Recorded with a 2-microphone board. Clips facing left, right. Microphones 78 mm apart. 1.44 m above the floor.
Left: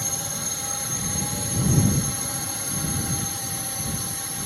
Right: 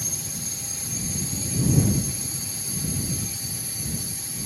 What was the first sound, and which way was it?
A drone, 65° left (ahead or behind).